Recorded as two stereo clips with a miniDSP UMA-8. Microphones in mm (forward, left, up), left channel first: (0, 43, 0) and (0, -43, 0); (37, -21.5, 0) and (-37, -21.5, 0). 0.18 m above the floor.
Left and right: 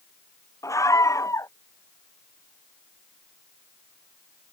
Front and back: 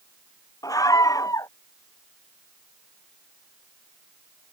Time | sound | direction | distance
0.6 | a scream | 35° left | ?